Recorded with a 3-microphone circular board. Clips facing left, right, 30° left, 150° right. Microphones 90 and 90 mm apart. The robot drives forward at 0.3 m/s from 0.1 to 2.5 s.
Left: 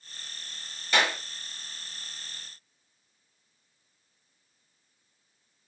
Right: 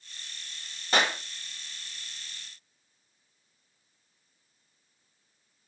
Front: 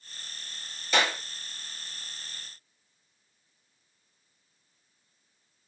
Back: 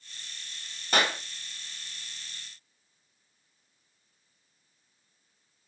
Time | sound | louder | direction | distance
0.9 | a clap | even, even | 135° right | 1.4 m